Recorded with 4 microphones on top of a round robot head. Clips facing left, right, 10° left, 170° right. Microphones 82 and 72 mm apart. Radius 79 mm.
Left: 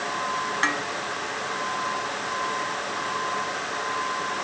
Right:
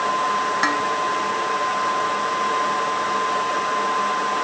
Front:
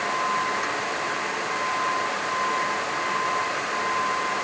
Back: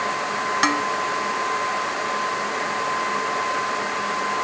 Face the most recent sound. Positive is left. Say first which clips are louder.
# right 5 dB, back 7 dB
turn(degrees=-170)